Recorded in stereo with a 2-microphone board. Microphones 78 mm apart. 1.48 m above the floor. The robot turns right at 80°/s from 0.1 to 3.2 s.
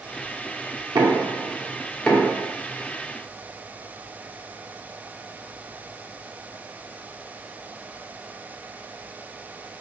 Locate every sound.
0.9 s knocking: 60° right (ahead or behind), 0.7 m; by 2.4 s 35° left (ahead or behind), 0.7 m